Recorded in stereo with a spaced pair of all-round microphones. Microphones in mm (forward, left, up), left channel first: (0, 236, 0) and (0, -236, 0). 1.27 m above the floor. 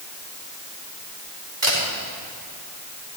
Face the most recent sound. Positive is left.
turn(degrees=-75)  # may be behind; listen again after turning